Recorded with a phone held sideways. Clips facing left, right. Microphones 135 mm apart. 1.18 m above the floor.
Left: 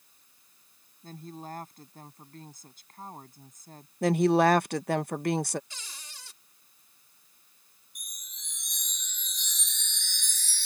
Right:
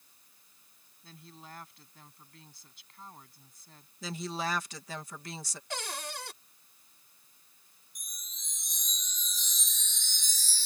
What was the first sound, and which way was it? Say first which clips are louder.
A woman speaking: left 10 dB; 45° left (ahead or behind).